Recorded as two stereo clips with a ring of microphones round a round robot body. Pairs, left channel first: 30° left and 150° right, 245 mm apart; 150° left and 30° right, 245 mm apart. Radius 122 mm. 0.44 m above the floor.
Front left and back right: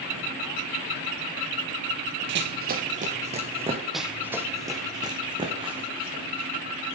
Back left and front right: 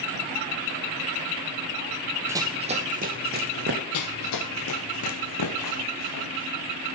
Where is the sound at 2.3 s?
110° right, 0.7 m; by 3.8 s 80° right, 1.8 m.